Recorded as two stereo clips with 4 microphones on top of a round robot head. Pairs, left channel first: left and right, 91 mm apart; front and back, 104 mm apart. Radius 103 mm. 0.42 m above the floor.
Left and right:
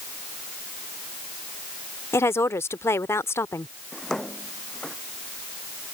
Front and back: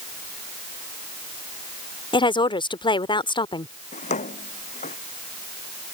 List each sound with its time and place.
2.1 s a woman speaking: 30° left
3.9 s a drawer: 5° left